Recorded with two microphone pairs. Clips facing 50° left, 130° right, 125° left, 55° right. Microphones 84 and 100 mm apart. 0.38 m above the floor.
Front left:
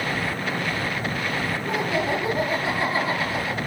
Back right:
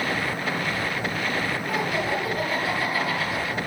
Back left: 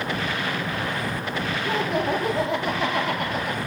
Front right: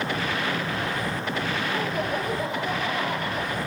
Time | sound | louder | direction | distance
1.6 | laughter | front left 4 dB, back left 3 dB | 115° left | 8.5 m